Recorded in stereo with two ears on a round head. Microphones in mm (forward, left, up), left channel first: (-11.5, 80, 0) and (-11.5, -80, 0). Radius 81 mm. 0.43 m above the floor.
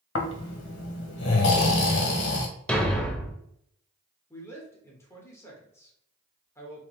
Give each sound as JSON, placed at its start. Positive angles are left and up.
{"t": 0.1, "sound": "snoring", "side_deg": 65, "distance_m": 0.8}
{"t": 2.7, "sound": "a thud", "side_deg": 5, "distance_m": 0.6}
{"t": 4.3, "sound": "a woman speaking", "side_deg": 15, "distance_m": 1.0}